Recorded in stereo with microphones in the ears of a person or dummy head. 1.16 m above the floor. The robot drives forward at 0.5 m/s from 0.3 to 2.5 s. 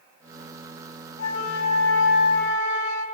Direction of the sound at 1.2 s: 75° left (ahead or behind).